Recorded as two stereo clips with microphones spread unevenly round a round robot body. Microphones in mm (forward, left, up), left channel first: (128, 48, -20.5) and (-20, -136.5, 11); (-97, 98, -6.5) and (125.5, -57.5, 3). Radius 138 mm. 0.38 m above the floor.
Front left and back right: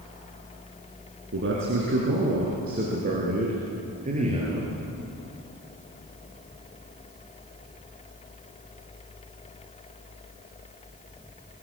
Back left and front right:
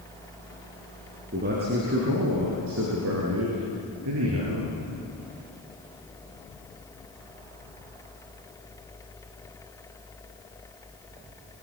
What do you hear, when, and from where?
1.3 s a man speaking: 95° right, 5 m; by 4.7 s 65° right, 7.5 m